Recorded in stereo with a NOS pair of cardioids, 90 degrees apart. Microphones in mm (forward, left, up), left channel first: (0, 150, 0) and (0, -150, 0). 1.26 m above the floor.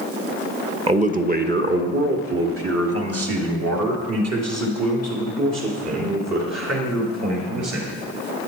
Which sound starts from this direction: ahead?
A man speaking, at 0.9 s.